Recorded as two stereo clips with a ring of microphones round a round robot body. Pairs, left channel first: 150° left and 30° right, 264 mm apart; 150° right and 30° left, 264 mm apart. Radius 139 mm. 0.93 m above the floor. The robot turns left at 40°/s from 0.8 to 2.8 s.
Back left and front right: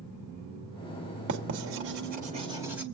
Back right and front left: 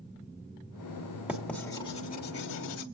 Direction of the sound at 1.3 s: 55° right.